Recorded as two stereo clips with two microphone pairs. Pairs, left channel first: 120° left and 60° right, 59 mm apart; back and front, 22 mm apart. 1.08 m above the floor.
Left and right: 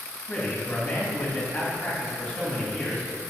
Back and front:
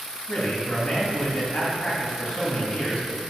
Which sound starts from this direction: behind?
A man speaking, at 0.3 s.